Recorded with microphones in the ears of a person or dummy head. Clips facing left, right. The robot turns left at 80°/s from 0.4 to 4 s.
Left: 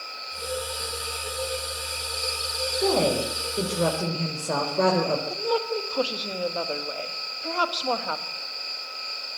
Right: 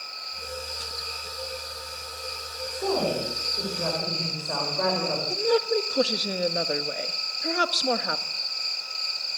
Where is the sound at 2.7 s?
165° left, 4.5 m; by 5.2 s 55° left, 4.5 m.